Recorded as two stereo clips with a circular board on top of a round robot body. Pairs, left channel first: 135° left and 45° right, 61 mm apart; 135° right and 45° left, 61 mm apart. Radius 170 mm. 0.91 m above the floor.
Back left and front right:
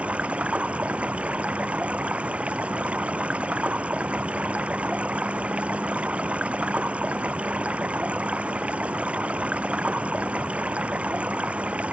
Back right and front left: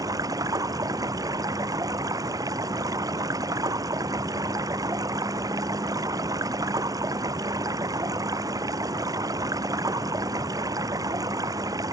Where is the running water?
25° left.